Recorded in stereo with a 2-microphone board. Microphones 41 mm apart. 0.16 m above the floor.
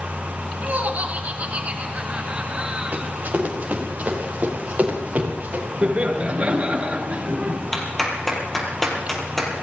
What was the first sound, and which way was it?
Laughter, 40° right (ahead or behind).